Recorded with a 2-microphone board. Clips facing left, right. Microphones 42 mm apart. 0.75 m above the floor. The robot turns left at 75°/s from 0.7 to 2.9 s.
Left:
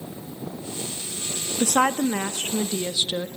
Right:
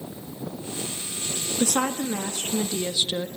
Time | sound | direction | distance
1.6 | a woman speaking | 125° left | 0.6 m